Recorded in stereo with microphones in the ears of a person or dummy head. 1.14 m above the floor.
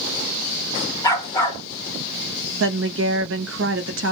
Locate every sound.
1.0 s a dog barking: 20° left (ahead or behind), 1.6 m
2.6 s a woman speaking: 65° right (ahead or behind), 1.1 m